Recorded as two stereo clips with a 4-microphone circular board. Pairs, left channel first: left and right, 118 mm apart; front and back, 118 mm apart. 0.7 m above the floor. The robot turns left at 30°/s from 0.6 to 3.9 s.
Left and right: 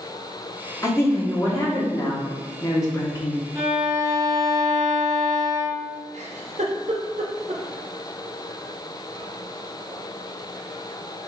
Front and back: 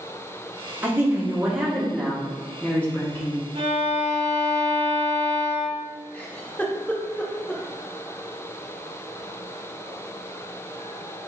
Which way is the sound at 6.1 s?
75° right.